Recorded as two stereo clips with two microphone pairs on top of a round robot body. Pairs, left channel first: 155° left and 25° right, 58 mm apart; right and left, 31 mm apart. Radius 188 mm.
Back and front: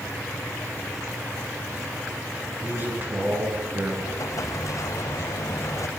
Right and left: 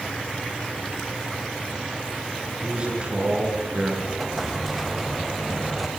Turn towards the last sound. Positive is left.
turn(degrees=180)